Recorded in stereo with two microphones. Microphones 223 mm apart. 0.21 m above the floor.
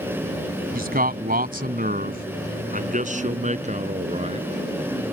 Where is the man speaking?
40° right (ahead or behind); by 4.5 s 30° right (ahead or behind).